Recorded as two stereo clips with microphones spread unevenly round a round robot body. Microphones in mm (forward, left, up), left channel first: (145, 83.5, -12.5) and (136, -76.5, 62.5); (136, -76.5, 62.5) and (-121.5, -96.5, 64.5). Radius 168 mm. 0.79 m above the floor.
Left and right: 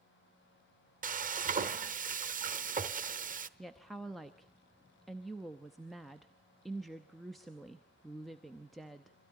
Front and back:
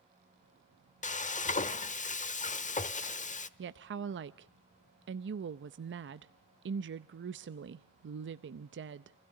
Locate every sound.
1.0 s frying: 60° right, 1.1 m
3.6 s a woman speaking: 150° left, 0.6 m